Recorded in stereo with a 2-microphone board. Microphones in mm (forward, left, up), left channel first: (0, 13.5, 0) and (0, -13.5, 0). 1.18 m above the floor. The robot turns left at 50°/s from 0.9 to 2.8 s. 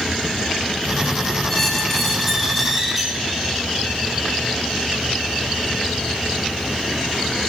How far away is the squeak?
About 0.8 m.